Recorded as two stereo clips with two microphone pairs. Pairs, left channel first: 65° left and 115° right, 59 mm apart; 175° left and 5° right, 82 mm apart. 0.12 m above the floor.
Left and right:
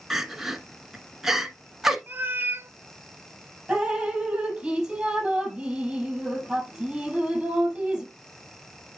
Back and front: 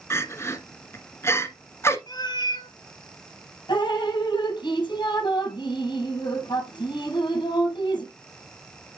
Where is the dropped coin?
I don't hear a dropped coin.